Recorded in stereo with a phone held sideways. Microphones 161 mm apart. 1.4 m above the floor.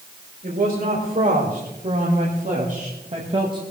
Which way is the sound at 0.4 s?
65° right (ahead or behind).